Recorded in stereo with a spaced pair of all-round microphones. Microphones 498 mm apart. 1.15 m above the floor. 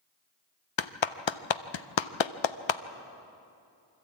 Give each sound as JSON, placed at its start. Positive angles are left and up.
{"t": 0.8, "sound": "a clap", "side_deg": 65, "distance_m": 0.6}